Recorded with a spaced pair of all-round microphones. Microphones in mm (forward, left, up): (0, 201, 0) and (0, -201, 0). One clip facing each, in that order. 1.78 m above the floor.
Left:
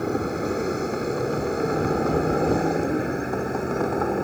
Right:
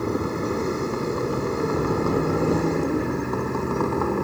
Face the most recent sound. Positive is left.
turn(degrees=-10)  # may be behind; listen again after turning